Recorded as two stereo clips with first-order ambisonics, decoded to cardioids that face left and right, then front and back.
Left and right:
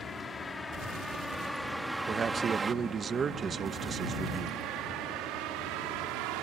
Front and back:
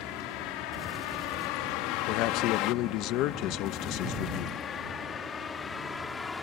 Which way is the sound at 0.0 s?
15° left.